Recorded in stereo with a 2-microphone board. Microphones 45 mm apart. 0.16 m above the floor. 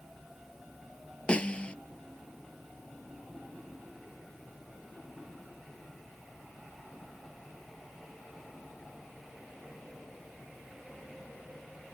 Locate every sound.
1.3 s a snare drum: 25° left (ahead or behind)